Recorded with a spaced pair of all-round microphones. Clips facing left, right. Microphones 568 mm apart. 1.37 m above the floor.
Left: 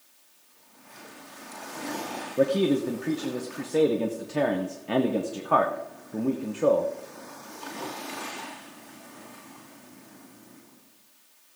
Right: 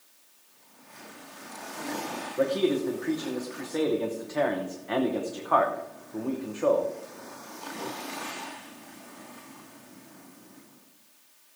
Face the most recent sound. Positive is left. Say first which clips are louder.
# left 2 dB
turn(degrees=50)  # may be behind; listen again after turning